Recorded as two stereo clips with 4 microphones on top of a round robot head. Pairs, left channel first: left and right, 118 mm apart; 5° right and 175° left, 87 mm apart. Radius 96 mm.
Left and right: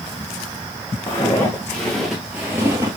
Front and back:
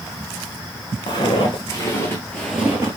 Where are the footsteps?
20° left, 1.3 m; by 3.0 s 135° right, 0.9 m.